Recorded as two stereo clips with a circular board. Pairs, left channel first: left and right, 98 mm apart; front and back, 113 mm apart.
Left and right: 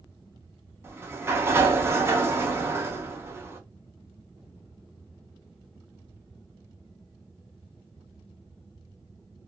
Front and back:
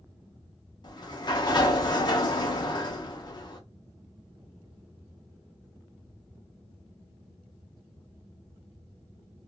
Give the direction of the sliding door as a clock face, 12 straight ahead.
1 o'clock.